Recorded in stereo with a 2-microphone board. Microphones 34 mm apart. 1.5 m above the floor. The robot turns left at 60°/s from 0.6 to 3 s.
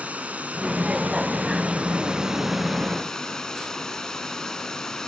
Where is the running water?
60° right, 2.5 m; by 5.1 s 160° left, 2.5 m.